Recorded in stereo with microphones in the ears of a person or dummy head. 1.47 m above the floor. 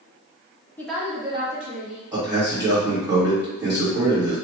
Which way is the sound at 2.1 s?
20° right (ahead or behind).